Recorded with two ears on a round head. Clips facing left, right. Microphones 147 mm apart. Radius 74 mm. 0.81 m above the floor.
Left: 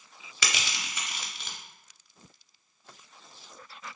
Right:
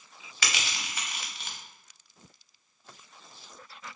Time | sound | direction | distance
0.4 | crushing | 85° left | 0.6 m